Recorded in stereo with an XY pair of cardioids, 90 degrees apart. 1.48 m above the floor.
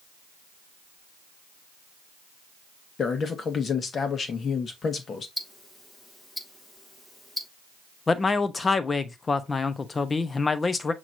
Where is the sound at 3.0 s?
50° left, 1.4 m.